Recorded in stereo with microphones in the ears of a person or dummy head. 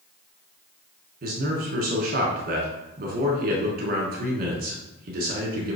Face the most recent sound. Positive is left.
turn(degrees=-50)  # may be behind; listen again after turning